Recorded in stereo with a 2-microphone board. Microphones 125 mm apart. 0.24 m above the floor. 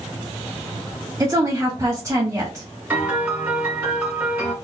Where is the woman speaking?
25° right (ahead or behind), 1.6 m.